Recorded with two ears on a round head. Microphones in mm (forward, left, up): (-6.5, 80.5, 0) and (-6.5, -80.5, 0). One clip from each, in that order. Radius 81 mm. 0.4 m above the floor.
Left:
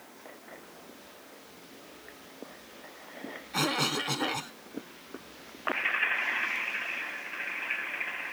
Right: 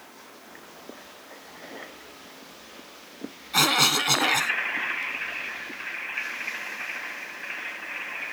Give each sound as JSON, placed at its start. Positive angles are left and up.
{"t": 0.0, "sound": "running water", "side_deg": -20}
{"t": 3.5, "sound": "a cough", "side_deg": -40}